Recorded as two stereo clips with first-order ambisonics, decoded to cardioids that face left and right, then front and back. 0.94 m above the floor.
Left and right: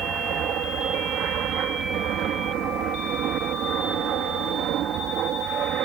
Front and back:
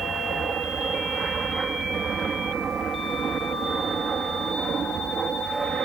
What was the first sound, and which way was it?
An aircraft, 120° right.